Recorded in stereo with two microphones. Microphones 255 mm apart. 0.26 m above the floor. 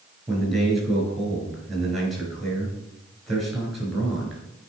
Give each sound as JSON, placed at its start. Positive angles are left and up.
{"t": 0.3, "sound": "a man speaking", "side_deg": 0, "distance_m": 4.0}